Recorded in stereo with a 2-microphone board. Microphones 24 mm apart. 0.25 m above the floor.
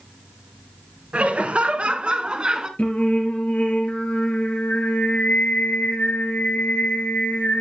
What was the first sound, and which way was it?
Laughter, 65° right (ahead or behind).